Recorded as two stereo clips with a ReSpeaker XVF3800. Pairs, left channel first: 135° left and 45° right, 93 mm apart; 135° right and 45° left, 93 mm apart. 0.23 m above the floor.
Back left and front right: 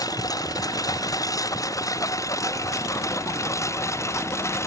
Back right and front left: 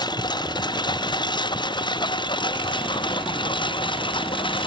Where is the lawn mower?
175° right; by 4.7 s 165° right.